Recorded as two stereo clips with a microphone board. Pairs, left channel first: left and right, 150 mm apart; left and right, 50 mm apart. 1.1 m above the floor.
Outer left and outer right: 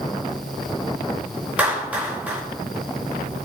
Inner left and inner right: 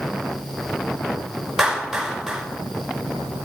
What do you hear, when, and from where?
1.6 s a clap: 10° right (ahead or behind), 4.5 m